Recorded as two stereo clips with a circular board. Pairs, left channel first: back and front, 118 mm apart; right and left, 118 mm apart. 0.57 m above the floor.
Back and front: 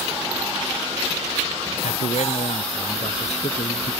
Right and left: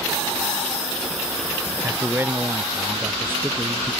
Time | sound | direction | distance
1.8 | a man speaking | 160° left | ?